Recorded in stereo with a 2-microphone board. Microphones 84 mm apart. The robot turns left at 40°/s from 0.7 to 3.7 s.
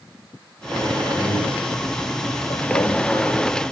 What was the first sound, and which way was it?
A man speaking, 15° left (ahead or behind).